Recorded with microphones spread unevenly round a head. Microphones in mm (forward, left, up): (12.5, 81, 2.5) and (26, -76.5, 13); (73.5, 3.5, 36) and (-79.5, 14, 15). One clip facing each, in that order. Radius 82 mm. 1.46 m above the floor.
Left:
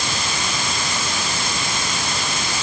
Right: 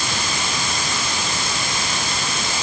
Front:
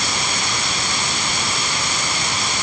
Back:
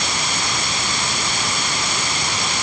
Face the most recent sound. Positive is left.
No sound to turn to.